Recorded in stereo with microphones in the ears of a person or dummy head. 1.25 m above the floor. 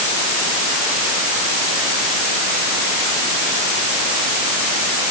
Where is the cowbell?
No cowbell in this recording.